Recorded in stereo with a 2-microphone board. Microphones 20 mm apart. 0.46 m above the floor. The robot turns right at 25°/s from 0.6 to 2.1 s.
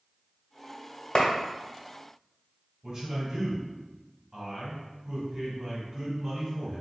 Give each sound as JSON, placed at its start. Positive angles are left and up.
{"t": 1.1, "sound": "a clap", "side_deg": 50, "distance_m": 1.2}
{"t": 2.8, "sound": "a man speaking", "side_deg": -30, "distance_m": 1.6}